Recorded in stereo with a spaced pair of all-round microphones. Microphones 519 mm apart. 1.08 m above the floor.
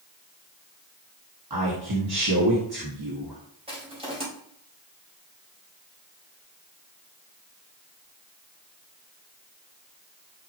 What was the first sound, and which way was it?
A man speaking, 45° right (ahead or behind).